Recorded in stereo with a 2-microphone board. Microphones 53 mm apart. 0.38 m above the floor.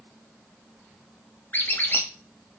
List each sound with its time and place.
1.5 s a squeak: 40° left (ahead or behind), 0.6 m